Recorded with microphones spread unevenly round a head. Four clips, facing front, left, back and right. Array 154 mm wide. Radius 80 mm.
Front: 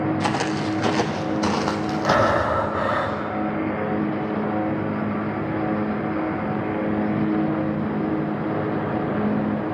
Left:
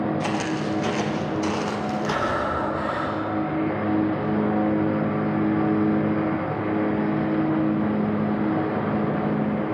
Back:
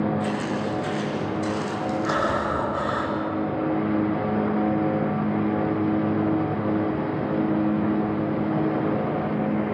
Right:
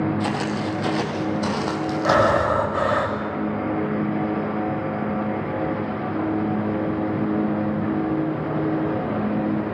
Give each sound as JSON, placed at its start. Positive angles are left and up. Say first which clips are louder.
{"t": 0.2, "sound": "footsteps", "louder": "right 1 dB, front 3 dB", "azimuth_deg": 0, "distance_m": 3.5}
{"t": 2.0, "sound": "breathing", "louder": "right 10 dB, front 7 dB", "azimuth_deg": -70, "distance_m": 5.0}